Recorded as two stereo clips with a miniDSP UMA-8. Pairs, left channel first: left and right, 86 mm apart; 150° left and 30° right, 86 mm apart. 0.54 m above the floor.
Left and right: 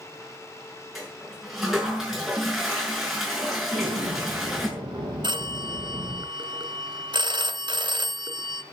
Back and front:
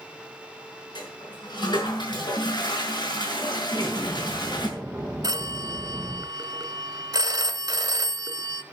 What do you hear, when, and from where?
0.9 s a toilet flushing: 175° right, 6 m
3.7 s an explosion: 95° right, 4.5 m
5.2 s a phone ringing: 75° right, 1.3 m